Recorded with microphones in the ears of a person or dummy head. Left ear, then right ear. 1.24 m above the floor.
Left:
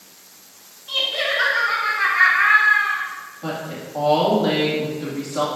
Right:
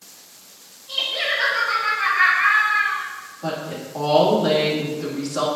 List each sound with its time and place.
0.9 s laughter: 65° left (ahead or behind), 2.5 m; by 3.0 s 85° left, 3 m
3.4 s a woman speaking: centre (ahead or behind), 2 m